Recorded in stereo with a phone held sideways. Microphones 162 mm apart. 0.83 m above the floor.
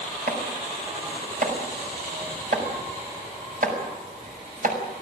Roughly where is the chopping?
Right.